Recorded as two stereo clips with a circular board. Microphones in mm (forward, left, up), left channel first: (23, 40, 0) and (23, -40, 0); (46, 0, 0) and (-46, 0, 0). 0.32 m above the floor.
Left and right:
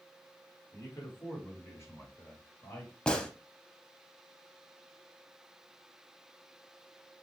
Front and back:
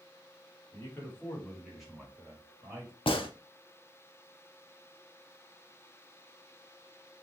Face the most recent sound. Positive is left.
turn(degrees=10)